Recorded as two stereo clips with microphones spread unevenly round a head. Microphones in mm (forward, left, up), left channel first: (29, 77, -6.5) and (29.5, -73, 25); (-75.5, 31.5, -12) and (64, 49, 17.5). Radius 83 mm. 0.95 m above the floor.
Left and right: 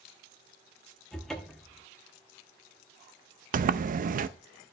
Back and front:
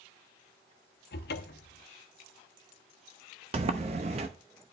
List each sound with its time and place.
1.1 s a cupboard door: straight behind, 0.8 m
3.5 s a sliding door: 50° right, 0.5 m